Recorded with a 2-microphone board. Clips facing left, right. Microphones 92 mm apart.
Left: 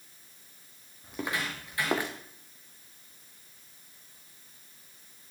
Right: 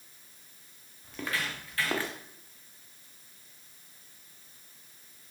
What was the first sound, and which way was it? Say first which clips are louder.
Footsteps: left 1 dB; 20° left (ahead or behind).